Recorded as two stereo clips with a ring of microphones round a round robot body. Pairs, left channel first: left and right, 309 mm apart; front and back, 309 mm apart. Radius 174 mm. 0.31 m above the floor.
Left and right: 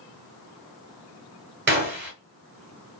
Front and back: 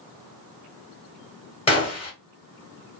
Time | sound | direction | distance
1.7 | a gunshot | 60° right | 1.7 m